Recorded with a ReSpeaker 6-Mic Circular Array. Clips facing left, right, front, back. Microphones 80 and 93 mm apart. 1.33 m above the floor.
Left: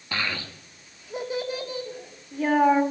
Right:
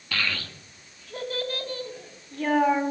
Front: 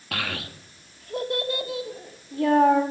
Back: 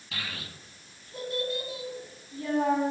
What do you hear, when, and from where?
0.1 s a child speaking: 20° left, 1.7 m; by 2.8 s 10° left, 3.5 m